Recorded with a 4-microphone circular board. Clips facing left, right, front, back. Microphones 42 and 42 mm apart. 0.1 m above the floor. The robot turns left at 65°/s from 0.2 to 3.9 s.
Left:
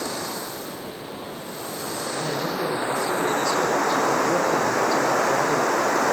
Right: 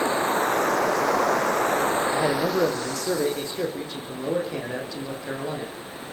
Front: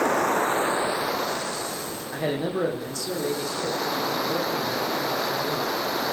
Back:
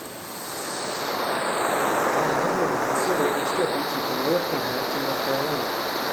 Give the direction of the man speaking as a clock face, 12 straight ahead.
2 o'clock.